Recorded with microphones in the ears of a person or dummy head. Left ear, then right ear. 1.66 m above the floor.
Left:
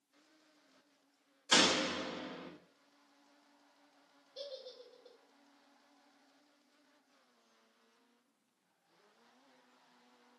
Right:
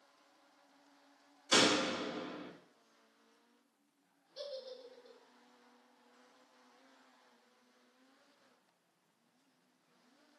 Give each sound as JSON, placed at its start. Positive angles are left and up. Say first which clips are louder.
{"t": 1.5, "sound": "a door slam", "louder": "even", "side_deg": 40, "distance_m": 1.0}
{"t": 4.3, "sound": "a giggle", "louder": "right 2 dB", "side_deg": 20, "distance_m": 1.8}